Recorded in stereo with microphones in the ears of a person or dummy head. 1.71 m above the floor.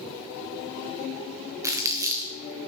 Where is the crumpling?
15° right (ahead or behind), 0.5 m.